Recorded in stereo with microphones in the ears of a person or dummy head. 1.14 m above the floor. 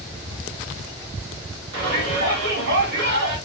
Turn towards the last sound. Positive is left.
turn(degrees=-55)  # may be behind; listen again after turning